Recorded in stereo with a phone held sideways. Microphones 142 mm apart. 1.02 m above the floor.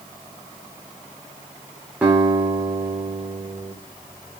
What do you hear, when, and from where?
2.0 s a guitar: 10° right (ahead or behind), 3.5 m